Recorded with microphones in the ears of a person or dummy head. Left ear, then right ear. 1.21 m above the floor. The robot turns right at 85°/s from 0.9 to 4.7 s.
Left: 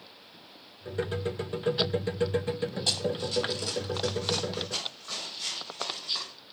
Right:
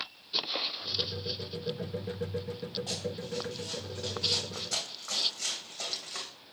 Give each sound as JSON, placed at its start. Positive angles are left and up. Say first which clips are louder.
{"t": 2.9, "sound": "running footsteps", "louder": "left 7 dB", "side_deg": 50, "distance_m": 2.0}